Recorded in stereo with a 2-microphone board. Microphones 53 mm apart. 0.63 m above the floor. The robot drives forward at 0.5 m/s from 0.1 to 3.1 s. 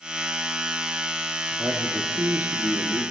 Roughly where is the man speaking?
Right.